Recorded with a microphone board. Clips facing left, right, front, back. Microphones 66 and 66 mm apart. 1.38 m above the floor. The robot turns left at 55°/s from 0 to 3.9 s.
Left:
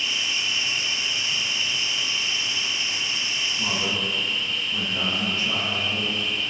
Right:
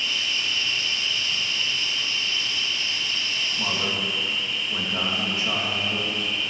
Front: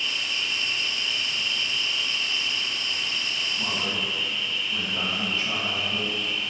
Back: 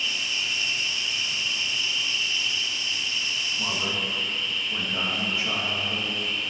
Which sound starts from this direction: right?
A man speaking, at 3.6 s.